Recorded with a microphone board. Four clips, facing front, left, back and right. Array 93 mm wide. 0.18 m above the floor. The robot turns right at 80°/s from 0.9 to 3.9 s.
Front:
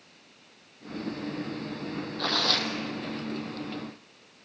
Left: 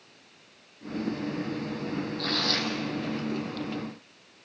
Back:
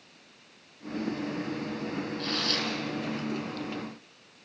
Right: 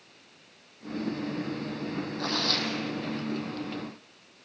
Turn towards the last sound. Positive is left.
turn(degrees=110)